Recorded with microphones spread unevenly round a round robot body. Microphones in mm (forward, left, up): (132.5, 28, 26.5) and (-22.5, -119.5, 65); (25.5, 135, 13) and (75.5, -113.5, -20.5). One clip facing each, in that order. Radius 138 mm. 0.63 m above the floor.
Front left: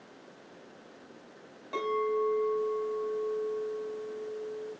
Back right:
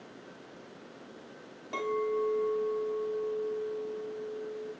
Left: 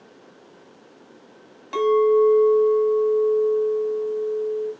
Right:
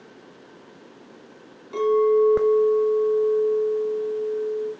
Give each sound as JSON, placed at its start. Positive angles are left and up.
{"t": 1.7, "sound": "a clink", "azimuth_deg": 135, "distance_m": 2.5}